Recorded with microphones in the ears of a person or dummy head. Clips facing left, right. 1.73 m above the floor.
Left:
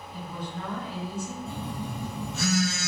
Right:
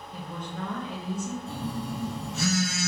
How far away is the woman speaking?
About 1.2 m.